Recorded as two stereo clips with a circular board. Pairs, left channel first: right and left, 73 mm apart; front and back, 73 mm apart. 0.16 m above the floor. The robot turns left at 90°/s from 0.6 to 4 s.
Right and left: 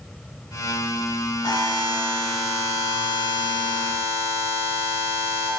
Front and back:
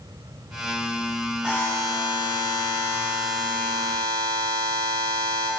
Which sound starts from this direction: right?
A buzzer, at 1.4 s.